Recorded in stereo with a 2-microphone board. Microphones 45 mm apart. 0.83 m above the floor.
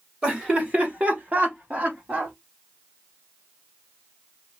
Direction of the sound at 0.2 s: 25° right (ahead or behind).